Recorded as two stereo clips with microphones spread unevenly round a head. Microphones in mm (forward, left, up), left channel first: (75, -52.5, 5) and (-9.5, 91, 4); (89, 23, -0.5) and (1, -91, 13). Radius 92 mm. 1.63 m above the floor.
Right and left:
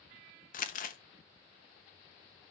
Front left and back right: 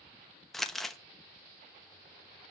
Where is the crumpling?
40° right, 1.2 m.